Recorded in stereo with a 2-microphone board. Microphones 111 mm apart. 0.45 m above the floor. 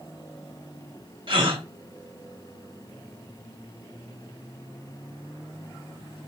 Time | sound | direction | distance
1.3 | a gasp | 45° right (ahead or behind) | 1.1 m